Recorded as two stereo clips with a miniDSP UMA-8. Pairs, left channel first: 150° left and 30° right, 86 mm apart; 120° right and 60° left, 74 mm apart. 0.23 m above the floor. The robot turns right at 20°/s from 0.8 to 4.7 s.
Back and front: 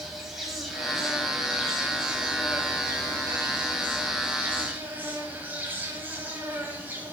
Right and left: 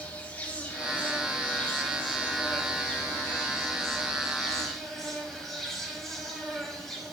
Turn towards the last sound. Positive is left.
turn(degrees=-40)